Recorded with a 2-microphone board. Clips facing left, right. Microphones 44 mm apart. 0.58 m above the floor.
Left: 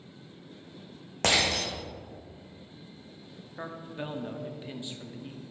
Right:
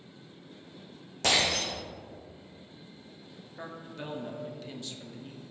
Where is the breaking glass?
50° left (ahead or behind), 2 m.